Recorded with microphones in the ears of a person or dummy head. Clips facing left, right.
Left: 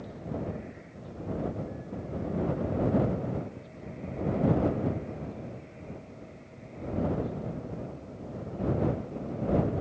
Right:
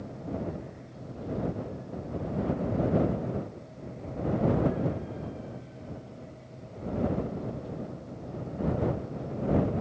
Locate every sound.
Only background noise.